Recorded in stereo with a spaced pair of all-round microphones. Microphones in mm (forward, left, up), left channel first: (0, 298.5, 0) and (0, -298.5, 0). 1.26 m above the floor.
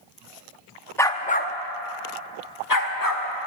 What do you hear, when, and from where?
1.0 s a dog barking: 5° left (ahead or behind), 0.7 m; by 3.2 s 35° left (ahead or behind), 1.6 m